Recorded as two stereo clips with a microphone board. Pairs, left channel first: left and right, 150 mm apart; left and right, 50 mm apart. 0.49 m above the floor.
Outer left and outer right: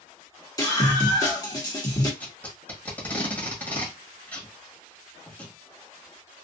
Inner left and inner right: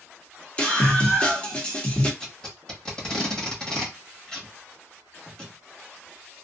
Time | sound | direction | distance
0.6 | a scream | 25° left (ahead or behind) | 1.1 m
2.2 | tape being pulled | 10° left (ahead or behind) | 1.5 m